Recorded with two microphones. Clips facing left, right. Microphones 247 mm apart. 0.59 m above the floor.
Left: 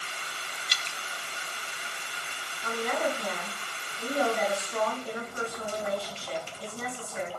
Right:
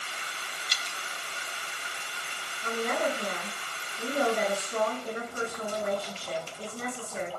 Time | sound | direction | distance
0.7 | dripping | 70° left (ahead or behind) | 0.8 m
2.6 | a woman speaking | 45° right (ahead or behind) | 7 m